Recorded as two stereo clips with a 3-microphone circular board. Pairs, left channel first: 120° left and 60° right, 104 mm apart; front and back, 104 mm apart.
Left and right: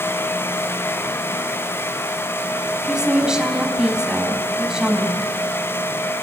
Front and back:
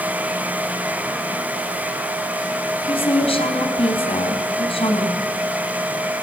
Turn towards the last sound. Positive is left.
turn(degrees=25)